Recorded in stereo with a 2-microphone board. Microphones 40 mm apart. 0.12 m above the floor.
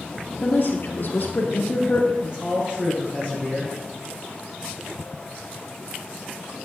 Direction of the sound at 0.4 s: 50° left (ahead or behind).